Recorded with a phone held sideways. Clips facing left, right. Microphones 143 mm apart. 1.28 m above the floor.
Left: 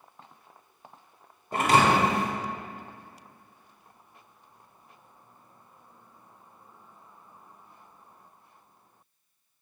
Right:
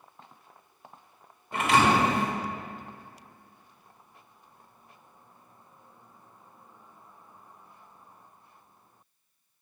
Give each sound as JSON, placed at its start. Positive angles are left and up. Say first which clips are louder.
{"t": 1.5, "sound": "a thud", "louder": "left 1 dB", "side_deg": 40, "distance_m": 1.2}